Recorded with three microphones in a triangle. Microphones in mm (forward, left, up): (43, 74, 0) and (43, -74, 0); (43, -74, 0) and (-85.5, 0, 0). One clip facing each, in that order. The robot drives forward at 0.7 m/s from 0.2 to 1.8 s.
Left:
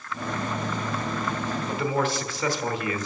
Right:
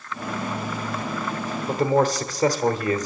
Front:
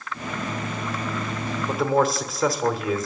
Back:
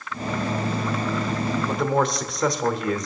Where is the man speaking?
110° right, 1.1 m; by 3.1 s 115° right, 1.1 m.